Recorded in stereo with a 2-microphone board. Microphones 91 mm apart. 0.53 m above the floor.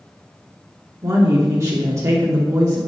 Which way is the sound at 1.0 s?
35° right (ahead or behind).